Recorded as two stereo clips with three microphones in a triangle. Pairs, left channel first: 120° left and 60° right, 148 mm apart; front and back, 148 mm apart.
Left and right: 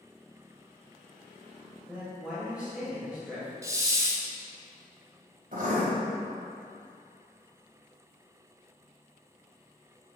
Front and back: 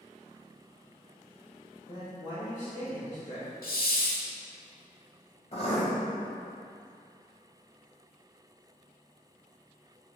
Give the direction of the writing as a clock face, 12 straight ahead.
1 o'clock.